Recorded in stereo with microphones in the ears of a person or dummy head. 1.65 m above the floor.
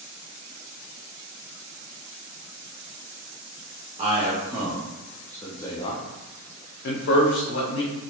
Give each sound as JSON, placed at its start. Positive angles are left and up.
{"t": 4.0, "sound": "a man speaking", "side_deg": -30, "distance_m": 1.1}